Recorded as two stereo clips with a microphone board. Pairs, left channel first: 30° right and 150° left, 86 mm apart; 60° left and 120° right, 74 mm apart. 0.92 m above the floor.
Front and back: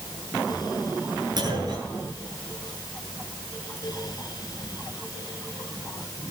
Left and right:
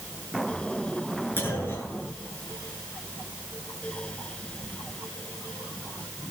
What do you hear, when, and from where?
1.4 s a clunk: 115° left, 7.5 m